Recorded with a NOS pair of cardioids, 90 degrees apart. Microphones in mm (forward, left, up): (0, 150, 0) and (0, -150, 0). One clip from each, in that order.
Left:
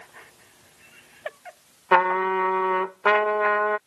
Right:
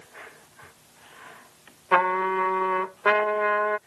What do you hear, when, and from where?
1.9 s a trumpet: 45° left